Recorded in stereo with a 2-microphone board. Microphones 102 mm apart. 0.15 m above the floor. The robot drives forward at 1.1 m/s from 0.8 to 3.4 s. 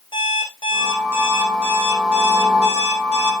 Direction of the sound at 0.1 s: 50° left (ahead or behind).